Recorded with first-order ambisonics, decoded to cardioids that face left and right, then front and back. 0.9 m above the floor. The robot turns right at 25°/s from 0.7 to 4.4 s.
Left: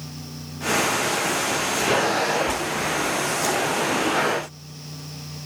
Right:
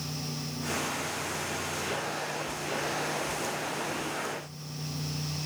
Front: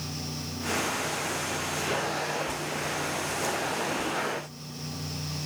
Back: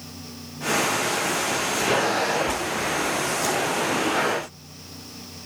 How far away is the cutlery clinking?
I don't hear cutlery clinking.